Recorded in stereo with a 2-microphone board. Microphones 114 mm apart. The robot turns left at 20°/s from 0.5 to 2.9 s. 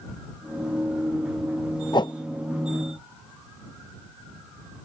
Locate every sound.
1.9 s a whoosh: 40° left (ahead or behind); by 2.1 s 45° left (ahead or behind)